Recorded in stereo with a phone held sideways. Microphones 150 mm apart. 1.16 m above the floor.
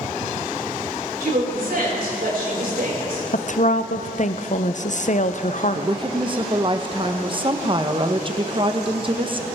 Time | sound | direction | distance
1.2 | a woman speaking | 80° right | 6.5 m
3.3 | a woman speaking | 55° left (ahead or behind) | 0.6 m
5.8 | a woman speaking | 35° right (ahead or behind) | 1.0 m